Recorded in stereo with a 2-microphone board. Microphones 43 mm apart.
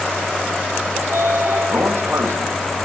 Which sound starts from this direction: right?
A sliding door, at 1.0 s.